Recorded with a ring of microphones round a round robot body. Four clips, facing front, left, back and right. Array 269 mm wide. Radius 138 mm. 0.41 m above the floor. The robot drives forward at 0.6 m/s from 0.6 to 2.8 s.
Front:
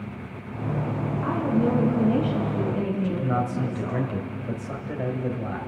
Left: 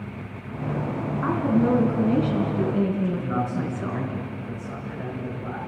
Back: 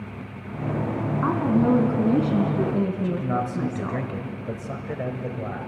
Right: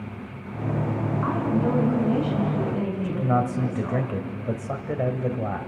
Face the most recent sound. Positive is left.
turn(degrees=-105)